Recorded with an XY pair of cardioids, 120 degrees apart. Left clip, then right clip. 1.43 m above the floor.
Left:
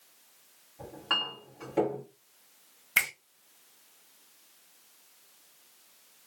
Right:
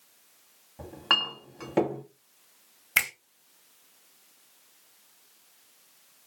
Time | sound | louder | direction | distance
0.8 | a clink | right 5 dB | 55° right | 1.2 m
3.0 | a finger snap | right 1 dB | 20° right | 1.1 m